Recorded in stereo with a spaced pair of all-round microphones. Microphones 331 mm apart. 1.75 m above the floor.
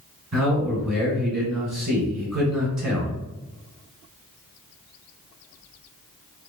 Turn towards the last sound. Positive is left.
turn(degrees=-50)  # may be behind; listen again after turning